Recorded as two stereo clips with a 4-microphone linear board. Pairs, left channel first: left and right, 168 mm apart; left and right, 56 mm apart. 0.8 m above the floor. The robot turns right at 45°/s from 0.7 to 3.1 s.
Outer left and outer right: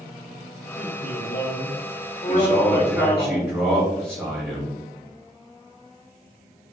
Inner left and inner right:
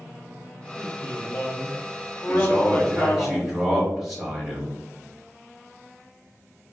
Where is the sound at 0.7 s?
50° left, 1.7 m; by 3.3 s 160° left, 1.7 m.